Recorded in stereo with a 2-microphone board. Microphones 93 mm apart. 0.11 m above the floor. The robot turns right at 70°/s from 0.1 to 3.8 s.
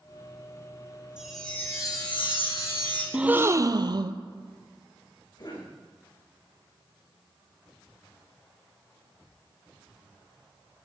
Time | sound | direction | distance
1.2 | a chime | 10° right | 3 m
3.1 | a gasp | 170° right | 0.6 m
5.4 | a cough | 55° left (ahead or behind) | 5.5 m